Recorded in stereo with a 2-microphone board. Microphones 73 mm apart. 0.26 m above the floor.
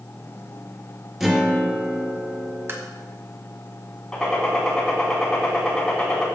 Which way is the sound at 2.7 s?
35° right (ahead or behind).